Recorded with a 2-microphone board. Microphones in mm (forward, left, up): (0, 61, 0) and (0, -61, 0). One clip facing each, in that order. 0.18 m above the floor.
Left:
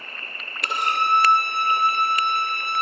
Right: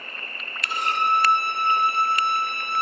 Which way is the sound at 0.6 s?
65° left (ahead or behind).